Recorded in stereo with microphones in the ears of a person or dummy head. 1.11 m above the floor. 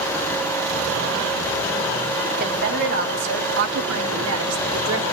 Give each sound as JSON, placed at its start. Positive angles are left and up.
{"t": 2.4, "sound": "a woman speaking", "side_deg": -55, "distance_m": 3.0}